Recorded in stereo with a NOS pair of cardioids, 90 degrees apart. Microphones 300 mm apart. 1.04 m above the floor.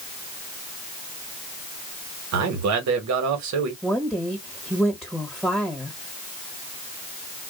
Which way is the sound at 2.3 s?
70° right.